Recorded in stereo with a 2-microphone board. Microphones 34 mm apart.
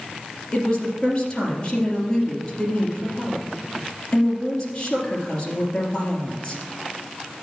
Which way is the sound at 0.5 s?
20° left (ahead or behind).